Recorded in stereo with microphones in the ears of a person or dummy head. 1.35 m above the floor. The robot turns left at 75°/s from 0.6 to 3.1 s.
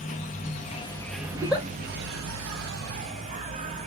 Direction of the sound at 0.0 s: 40° left.